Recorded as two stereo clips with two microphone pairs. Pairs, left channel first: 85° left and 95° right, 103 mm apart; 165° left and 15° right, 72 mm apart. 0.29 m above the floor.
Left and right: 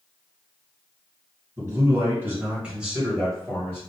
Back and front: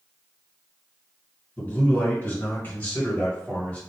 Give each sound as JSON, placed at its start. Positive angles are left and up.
{"t": 1.6, "sound": "a man speaking", "azimuth_deg": -140, "distance_m": 2.0}